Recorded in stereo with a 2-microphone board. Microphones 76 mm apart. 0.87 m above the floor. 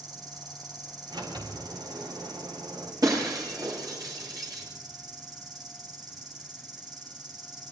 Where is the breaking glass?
55° right (ahead or behind), 6.5 m.